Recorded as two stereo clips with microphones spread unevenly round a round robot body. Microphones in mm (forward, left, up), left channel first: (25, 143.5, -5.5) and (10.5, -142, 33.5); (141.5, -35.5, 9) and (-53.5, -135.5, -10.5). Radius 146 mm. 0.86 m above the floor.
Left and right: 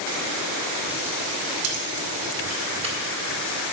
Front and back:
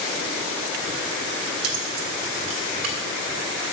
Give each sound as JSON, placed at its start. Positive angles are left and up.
{"t": 1.6, "sound": "keys jangling", "azimuth_deg": -140, "distance_m": 1.6}